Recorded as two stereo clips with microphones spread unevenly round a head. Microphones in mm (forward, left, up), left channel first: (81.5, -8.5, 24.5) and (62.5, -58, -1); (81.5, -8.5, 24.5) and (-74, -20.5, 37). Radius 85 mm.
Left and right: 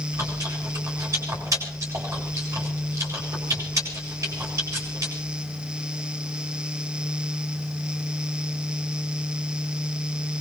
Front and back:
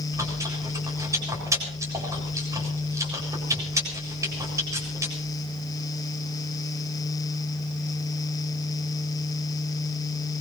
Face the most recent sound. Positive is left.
turn(degrees=-105)